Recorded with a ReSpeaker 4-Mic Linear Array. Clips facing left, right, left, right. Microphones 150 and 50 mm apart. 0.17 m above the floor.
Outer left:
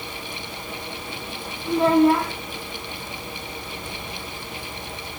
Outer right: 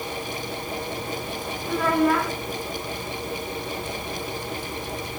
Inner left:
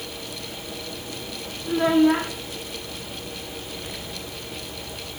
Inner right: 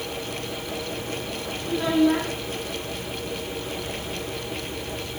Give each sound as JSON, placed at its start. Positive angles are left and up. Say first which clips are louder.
{"t": 1.7, "sound": "a child speaking", "louder": "outer left 5 dB, inner left 3 dB", "side_deg": 25, "distance_m": 1.0}